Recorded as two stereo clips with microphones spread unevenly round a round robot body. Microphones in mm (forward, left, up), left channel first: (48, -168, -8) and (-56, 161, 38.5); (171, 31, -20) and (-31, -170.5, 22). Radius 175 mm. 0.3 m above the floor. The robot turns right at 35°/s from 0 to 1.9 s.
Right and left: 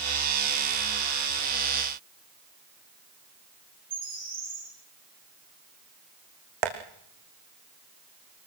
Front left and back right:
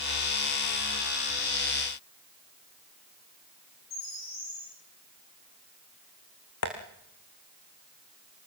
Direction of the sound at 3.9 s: 40° left.